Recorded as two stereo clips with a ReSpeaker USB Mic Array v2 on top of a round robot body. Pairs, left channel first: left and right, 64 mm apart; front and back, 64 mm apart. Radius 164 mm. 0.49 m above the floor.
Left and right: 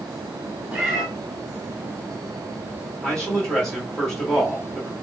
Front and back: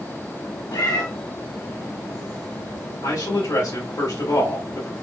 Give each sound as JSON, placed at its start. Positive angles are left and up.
{"t": 0.7, "sound": "a cat meowing", "azimuth_deg": -20, "distance_m": 1.4}
{"t": 3.0, "sound": "a man speaking", "azimuth_deg": 5, "distance_m": 1.6}